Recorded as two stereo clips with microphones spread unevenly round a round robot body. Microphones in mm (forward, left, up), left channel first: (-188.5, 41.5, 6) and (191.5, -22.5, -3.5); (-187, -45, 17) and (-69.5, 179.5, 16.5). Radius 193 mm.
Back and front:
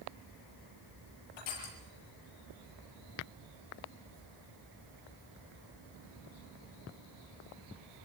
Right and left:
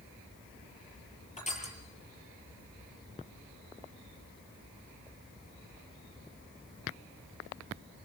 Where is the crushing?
Straight behind, 7 m.